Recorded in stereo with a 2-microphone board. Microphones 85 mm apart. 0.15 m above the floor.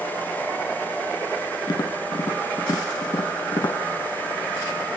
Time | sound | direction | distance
1.7 | tapping | 50° left (ahead or behind) | 0.6 m